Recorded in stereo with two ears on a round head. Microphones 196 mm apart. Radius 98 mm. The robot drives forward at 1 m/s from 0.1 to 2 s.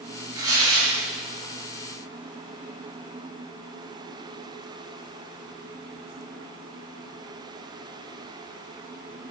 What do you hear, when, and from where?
0.3 s tearing paper: 20° right (ahead or behind), 4 m; by 1.0 s 15° right (ahead or behind), 4.5 m